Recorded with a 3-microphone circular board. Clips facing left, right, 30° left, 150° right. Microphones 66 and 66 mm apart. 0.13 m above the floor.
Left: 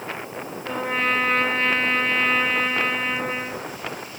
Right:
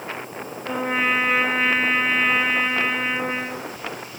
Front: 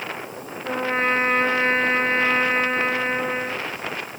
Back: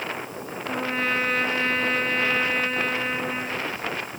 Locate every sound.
0.6 s a trumpet: 15° right, 1.2 m